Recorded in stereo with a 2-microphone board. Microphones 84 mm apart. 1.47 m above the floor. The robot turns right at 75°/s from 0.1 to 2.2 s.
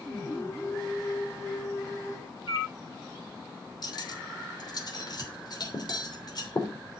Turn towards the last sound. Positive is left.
turn(degrees=55)  # may be behind; listen again after turning